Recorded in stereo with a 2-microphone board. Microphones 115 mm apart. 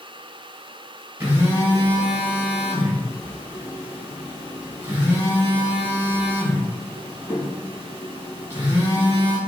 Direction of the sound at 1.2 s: 20° right (ahead or behind).